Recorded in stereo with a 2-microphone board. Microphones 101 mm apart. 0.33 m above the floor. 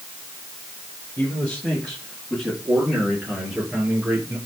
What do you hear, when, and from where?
1.2 s a man speaking: 10° left (ahead or behind), 6.5 m; by 4.4 s 15° right (ahead or behind), 6.5 m